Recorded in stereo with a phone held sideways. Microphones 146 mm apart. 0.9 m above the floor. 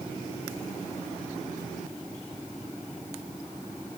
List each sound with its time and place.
Only background noise.